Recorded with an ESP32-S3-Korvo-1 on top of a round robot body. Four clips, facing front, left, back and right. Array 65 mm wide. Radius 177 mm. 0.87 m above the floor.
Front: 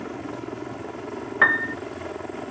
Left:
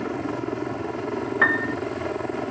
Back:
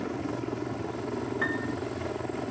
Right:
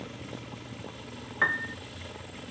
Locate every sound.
0.0 s a helicopter: 85° left
1.4 s a piano: 25° left